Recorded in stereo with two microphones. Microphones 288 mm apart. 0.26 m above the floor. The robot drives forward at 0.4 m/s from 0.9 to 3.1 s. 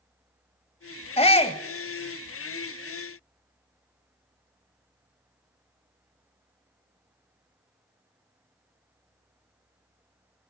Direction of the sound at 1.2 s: 20° left (ahead or behind).